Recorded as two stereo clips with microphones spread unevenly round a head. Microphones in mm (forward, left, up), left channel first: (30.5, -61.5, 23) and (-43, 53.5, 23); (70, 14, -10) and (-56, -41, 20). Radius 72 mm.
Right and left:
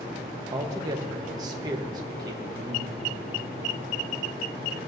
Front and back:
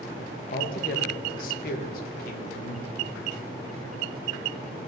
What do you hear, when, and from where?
0.5 s a man speaking: 60° left, 1.1 m